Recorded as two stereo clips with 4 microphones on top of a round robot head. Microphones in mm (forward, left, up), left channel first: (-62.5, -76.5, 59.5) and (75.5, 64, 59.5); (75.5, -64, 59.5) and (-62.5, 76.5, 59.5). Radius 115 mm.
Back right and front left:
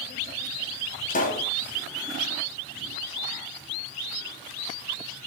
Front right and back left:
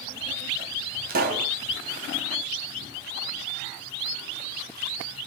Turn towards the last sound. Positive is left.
turn(degrees=175)